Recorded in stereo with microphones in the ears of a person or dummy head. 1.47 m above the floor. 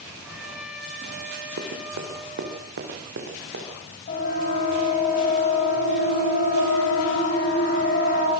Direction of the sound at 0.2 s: 5° right (ahead or behind).